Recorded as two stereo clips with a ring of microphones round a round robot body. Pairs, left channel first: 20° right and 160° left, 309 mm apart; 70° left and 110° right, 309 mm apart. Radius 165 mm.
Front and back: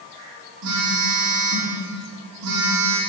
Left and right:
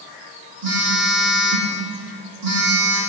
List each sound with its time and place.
0.6 s a phone buzzing: 165° right, 3.5 m